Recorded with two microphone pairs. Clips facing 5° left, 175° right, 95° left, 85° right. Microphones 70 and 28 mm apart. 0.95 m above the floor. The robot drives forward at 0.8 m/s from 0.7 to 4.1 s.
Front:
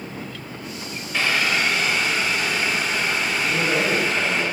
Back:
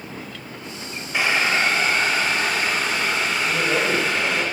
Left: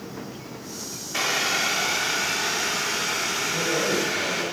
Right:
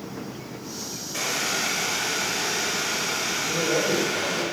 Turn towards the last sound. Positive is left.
turn(degrees=-130)